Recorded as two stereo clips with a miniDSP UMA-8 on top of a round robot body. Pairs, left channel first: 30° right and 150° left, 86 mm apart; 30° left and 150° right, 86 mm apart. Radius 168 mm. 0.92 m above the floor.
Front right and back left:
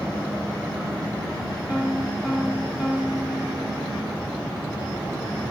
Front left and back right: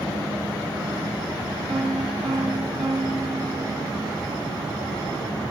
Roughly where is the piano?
Behind right.